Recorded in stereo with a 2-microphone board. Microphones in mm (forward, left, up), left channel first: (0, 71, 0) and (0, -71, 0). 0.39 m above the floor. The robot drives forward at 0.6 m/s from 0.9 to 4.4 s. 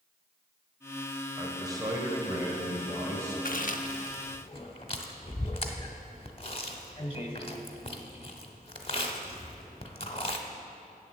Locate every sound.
1.4 s a man speaking: 25° right (ahead or behind), 2.0 m; by 3.4 s 20° right (ahead or behind), 3 m
3.5 s chewing: 70° left (ahead or behind), 0.6 m; by 10.4 s 40° left (ahead or behind), 0.9 m